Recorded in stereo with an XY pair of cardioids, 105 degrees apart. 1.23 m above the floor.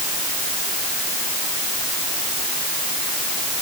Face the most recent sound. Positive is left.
No sound to turn to.